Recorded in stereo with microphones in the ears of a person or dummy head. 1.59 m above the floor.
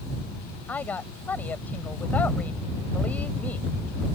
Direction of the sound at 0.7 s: 15° left (ahead or behind).